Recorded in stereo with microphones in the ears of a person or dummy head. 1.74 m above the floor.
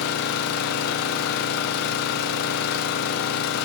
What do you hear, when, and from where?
0.0 s an engine running: 50° left (ahead or behind), 0.7 m